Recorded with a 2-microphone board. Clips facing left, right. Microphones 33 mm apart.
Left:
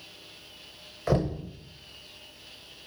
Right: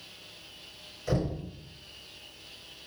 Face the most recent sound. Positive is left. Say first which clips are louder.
# left 4 dB
turn(degrees=65)  # may be behind; listen again after turning